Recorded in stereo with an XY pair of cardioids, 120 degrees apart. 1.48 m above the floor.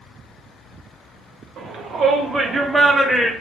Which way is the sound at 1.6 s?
65° right.